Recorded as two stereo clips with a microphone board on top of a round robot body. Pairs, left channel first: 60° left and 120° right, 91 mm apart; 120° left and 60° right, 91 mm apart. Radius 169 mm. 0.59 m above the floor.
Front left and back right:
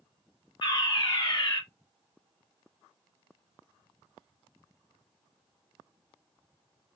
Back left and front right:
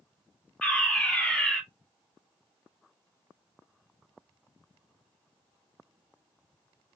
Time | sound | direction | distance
0.6 | a fire alarm | 45° left | 2 m